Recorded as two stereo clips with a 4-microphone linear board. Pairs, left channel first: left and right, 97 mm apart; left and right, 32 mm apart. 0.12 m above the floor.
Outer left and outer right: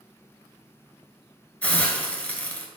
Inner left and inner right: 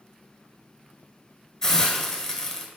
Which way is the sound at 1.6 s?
15° left (ahead or behind).